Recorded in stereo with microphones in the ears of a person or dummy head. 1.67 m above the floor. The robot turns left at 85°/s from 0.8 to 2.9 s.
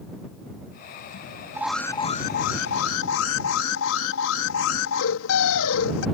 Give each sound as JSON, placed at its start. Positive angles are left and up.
{"t": 1.5, "sound": "an alarm", "azimuth_deg": -165}